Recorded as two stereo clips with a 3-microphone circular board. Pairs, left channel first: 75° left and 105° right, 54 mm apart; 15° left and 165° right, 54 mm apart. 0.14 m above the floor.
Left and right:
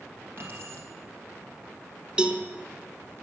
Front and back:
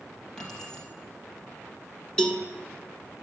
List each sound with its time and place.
0.4 s keys jangling: 60° right, 2.5 m
2.2 s a cowbell: 45° right, 1.0 m